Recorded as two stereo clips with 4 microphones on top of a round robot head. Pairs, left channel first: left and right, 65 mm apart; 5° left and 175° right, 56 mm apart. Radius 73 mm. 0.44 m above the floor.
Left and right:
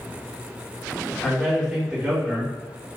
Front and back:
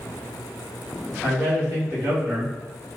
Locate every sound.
1.2 s a man speaking: 175° left, 1.8 m; by 2.9 s 140° right, 1.9 m